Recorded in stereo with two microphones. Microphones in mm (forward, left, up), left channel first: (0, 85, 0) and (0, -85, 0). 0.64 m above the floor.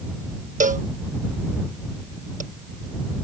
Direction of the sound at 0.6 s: 50° right (ahead or behind).